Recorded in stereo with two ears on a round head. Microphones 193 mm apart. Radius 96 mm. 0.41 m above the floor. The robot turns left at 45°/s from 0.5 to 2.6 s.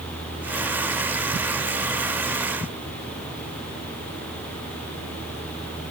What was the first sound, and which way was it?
Only background noise.